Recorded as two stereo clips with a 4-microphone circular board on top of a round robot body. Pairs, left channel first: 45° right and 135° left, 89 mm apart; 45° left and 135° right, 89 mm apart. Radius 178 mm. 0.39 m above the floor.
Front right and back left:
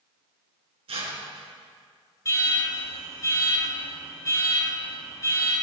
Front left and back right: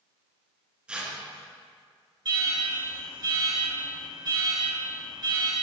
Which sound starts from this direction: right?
An alarm, at 2.2 s.